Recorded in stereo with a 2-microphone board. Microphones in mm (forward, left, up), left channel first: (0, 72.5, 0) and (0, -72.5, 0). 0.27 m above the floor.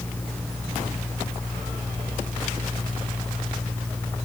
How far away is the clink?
I don't hear a clink.